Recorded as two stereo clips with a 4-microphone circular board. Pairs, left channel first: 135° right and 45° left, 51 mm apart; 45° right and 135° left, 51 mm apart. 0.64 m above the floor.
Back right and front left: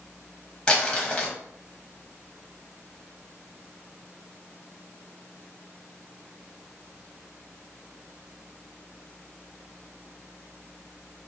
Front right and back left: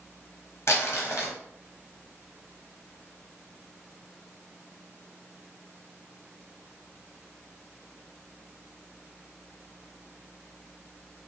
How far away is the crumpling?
About 0.8 m.